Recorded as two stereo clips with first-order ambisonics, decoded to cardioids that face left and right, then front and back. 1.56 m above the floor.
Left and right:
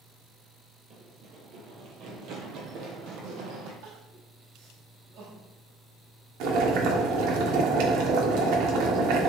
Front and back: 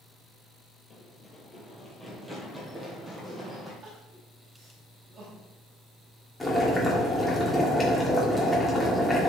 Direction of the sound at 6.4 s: 80° right.